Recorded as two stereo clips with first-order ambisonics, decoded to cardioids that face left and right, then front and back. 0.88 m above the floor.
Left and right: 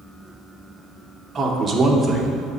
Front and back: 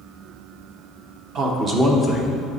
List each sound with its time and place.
1.4 s a man speaking: 150° right, 1.2 m; by 2.4 s 10° left, 1.0 m